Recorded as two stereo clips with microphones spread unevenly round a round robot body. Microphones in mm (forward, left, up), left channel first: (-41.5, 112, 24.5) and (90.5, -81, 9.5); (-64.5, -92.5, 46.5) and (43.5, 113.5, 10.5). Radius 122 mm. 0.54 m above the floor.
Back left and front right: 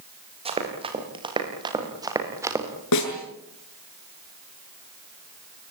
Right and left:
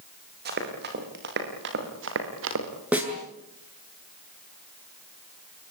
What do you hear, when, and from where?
0.5 s running footsteps: 10° left, 9 m; by 2.7 s 25° left, 6 m
2.9 s a snare drum: 145° left, 7.5 m